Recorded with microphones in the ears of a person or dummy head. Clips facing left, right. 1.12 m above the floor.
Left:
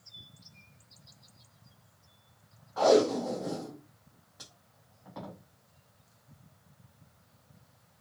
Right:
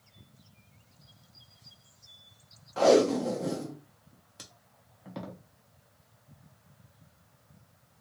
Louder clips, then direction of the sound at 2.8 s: Right 2 dB; 35° right (ahead or behind).